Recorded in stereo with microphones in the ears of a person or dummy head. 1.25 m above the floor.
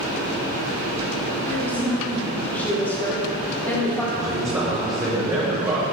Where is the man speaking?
15° right (ahead or behind), 1.3 m.